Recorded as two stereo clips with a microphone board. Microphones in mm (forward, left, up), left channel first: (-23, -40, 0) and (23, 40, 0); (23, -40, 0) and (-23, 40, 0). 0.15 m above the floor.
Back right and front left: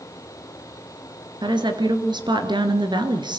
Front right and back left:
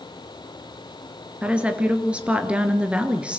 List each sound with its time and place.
1.4 s a woman speaking: 45° left, 2.5 m